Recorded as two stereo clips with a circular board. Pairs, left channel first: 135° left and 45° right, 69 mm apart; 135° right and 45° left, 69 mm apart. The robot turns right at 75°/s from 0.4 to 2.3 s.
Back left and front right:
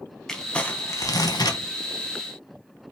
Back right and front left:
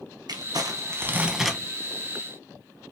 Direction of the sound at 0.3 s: 50° left.